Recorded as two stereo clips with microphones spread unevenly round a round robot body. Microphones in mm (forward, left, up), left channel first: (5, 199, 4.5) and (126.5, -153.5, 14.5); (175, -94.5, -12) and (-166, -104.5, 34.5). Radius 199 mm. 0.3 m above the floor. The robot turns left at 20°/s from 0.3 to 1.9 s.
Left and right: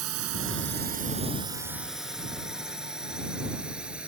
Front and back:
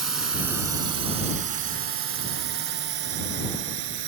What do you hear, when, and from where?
0.0 s a drone: 130° right; by 4.1 s 160° right